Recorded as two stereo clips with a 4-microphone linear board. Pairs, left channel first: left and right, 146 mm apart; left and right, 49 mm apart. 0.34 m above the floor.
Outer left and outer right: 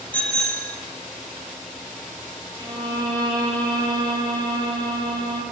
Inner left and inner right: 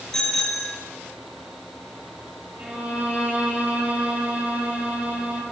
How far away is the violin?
About 6 m.